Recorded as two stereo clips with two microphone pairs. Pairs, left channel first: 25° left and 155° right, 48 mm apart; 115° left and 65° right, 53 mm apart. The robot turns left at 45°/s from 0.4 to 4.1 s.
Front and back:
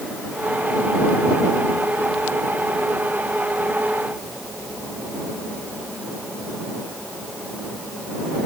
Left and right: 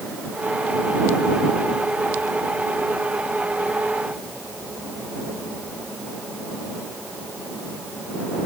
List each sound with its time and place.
Only background noise.